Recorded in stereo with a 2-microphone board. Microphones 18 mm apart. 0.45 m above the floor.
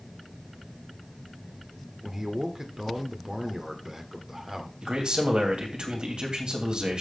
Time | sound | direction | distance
2.0 | a man speaking | 25° right (ahead or behind) | 1.3 m
4.8 | a man speaking | 65° right (ahead or behind) | 2.5 m